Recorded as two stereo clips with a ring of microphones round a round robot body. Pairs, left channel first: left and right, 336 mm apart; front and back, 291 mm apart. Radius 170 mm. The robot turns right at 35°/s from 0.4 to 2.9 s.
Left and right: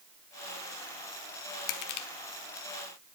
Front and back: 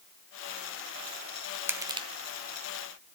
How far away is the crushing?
About 1.0 m.